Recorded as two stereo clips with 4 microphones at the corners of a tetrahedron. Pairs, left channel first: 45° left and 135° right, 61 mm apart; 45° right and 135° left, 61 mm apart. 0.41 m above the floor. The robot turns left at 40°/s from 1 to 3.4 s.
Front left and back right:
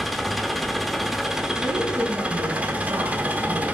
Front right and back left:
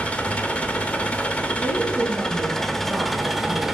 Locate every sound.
0.0 s an engine running: 45° right, 0.9 m; by 3.8 s 145° right, 0.9 m
1.6 s a woman speaking: 85° right, 3 m; by 3.6 s 155° right, 3 m